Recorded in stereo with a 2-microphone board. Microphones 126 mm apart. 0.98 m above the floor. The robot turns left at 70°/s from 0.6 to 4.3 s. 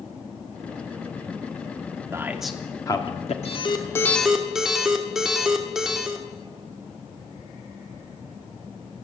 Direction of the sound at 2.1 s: 25° right (ahead or behind).